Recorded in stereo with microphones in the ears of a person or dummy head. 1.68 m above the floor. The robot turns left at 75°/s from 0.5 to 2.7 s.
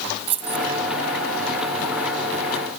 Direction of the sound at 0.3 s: 35° right (ahead or behind).